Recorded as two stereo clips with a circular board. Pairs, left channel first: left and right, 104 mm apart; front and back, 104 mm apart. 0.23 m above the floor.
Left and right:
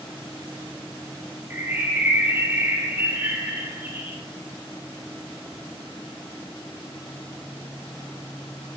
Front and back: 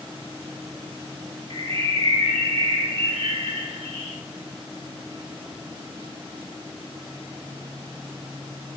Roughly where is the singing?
No singing in this recording.